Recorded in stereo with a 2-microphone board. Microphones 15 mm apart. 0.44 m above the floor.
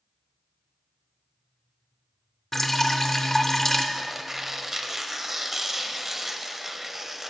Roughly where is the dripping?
Left.